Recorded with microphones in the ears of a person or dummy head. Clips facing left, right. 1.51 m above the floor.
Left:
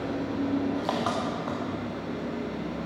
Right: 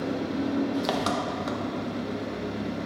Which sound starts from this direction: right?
An engine running, at 0.0 s.